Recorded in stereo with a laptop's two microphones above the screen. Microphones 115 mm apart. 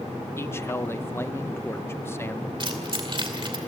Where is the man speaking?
20° left (ahead or behind), 0.6 m.